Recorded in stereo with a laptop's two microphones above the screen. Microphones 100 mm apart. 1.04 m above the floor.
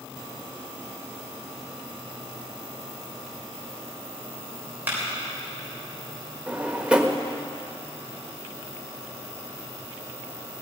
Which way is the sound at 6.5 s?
10° right (ahead or behind).